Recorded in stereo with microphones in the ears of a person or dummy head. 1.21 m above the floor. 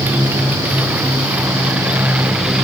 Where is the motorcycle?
10° right (ahead or behind); by 2.6 s 5° right (ahead or behind).